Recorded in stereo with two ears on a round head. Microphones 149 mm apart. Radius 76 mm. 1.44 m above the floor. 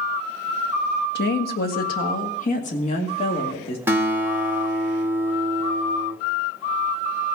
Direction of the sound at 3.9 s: 15° right (ahead or behind).